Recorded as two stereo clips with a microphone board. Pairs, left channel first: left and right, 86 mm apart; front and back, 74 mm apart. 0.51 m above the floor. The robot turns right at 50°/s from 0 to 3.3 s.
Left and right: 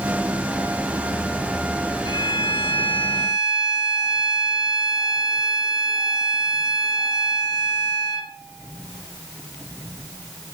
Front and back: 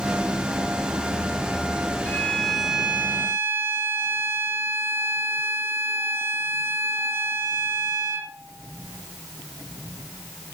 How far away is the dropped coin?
I don't hear a dropped coin.